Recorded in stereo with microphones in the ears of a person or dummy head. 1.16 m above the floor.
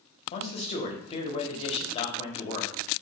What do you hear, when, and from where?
0.3 s a man speaking: 30° left (ahead or behind), 0.6 m